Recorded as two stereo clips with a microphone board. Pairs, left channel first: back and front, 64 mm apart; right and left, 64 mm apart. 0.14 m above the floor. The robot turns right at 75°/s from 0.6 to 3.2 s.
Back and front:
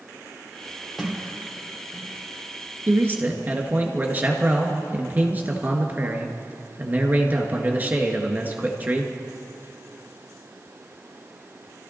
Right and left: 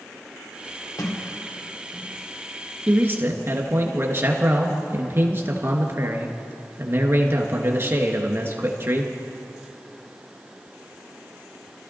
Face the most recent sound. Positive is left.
turn(degrees=55)